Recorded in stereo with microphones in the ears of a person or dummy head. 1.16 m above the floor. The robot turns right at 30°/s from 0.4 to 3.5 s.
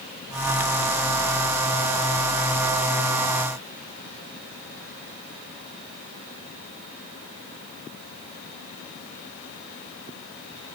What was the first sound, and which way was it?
Only background noise.